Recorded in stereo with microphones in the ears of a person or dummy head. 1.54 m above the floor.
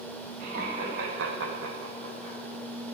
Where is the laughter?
50° right (ahead or behind), 2 m; by 2.4 s 25° right (ahead or behind), 1.9 m.